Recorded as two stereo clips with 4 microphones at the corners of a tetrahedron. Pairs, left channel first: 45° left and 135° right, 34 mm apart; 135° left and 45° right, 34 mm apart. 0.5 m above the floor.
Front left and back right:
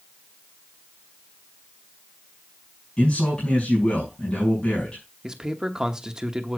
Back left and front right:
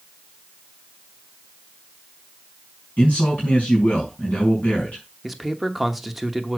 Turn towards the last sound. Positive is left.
turn(degrees=-135)